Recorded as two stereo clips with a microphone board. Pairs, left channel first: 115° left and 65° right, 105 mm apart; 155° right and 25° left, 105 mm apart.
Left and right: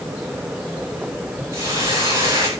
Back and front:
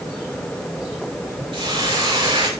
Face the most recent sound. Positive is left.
turn(degrees=-10)